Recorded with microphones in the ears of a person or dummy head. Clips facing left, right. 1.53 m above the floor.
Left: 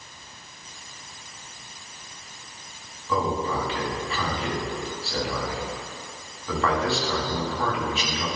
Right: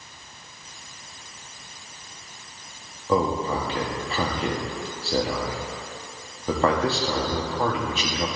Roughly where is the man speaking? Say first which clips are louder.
Right 3 dB; right.